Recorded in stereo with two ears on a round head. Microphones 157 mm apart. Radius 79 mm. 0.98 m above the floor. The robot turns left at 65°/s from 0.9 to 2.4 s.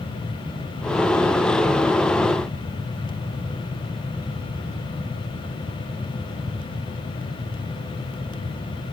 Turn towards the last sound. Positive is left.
No sound to turn to.